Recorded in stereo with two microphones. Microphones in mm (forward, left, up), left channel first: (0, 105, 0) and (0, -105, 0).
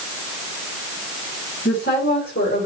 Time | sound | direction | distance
1.6 | a woman speaking | 65° left (ahead or behind) | 3.5 m